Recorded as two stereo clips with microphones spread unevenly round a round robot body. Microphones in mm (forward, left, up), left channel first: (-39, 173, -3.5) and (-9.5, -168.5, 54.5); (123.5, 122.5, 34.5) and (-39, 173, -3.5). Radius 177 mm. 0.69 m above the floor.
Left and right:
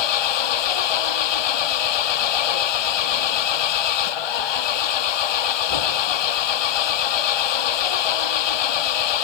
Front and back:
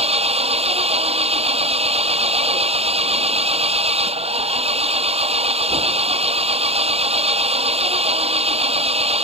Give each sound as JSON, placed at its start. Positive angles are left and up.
{"t": 0.0, "sound": "an engine running", "azimuth_deg": 105}